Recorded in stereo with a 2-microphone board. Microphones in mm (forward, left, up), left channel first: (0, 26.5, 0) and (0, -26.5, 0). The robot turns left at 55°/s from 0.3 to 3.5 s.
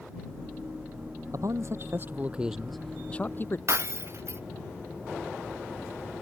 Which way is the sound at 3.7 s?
55° right (ahead or behind).